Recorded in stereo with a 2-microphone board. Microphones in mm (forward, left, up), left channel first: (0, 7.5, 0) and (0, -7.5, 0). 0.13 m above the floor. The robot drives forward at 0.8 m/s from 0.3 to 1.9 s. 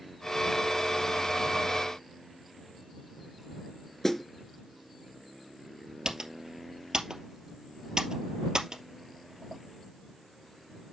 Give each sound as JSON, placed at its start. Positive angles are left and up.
{"t": 4.0, "sound": "a snare drum", "side_deg": 20, "distance_m": 1.4}
{"t": 6.0, "sound": "typing on a keyboard", "side_deg": -65, "distance_m": 2.5}